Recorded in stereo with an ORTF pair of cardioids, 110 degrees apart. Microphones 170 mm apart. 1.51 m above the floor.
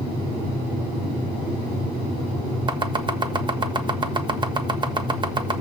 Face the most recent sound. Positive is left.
turn(degrees=-30)